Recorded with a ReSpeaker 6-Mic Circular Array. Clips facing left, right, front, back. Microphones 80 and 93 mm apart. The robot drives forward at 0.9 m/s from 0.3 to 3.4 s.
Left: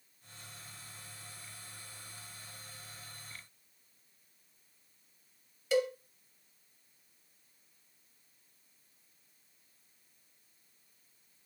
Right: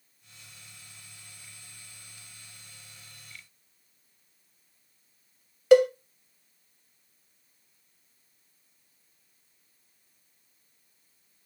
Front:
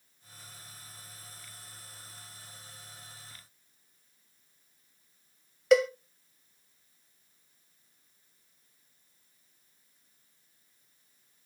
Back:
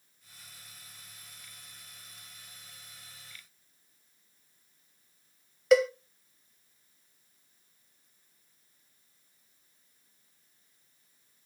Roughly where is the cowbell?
Right.